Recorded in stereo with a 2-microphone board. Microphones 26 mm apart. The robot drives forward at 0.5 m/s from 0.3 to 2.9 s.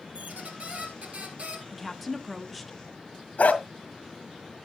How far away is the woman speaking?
About 1.0 m.